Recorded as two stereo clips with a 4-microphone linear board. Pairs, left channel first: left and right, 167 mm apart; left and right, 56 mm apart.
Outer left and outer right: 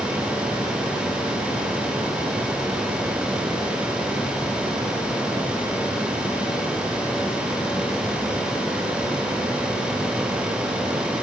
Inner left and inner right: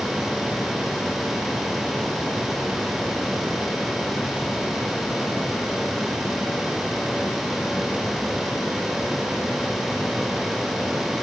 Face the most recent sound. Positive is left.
No sound to turn to.